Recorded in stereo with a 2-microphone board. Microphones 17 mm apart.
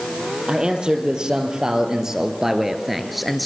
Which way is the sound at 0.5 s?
45° right (ahead or behind).